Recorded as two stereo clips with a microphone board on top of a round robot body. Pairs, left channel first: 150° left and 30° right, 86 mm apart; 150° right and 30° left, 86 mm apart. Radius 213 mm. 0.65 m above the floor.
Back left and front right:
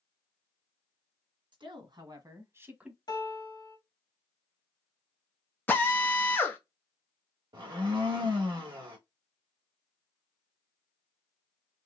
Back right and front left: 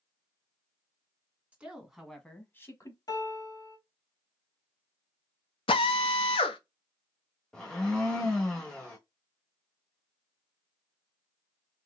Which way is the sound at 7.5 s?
65° right.